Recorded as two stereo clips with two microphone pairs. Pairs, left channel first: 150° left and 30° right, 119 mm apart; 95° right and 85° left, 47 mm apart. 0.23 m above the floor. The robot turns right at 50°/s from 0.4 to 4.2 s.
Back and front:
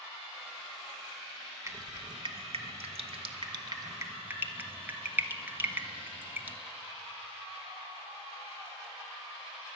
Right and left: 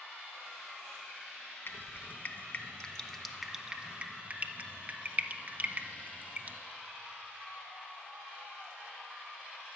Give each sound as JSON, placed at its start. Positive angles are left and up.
{"t": 1.7, "sound": "dripping", "azimuth_deg": -85, "distance_m": 0.9}